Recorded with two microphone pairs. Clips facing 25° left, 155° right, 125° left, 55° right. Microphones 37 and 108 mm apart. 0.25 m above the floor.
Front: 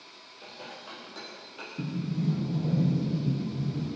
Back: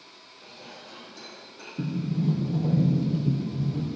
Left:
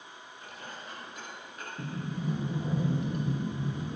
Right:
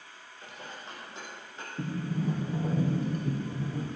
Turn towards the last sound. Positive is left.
turn(degrees=-110)